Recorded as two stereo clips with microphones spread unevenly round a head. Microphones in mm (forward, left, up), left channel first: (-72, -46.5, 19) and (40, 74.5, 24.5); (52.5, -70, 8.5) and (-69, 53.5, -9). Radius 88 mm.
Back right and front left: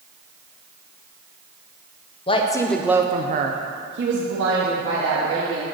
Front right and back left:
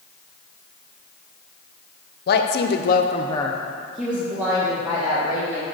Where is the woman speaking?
80° right, 0.7 m; by 5.6 s 65° left, 2 m.